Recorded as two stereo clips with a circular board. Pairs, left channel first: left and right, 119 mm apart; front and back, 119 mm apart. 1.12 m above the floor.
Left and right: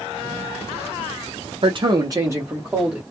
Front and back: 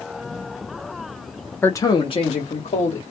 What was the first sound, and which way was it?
A man speaking, 75° right.